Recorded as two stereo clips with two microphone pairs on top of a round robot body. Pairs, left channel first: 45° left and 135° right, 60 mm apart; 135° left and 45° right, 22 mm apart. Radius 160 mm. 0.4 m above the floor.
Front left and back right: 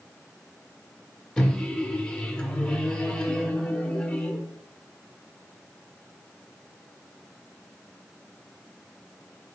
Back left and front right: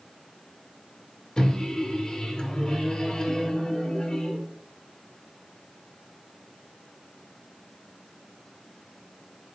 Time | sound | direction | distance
1.4 | a microwave | 105° left | 0.9 m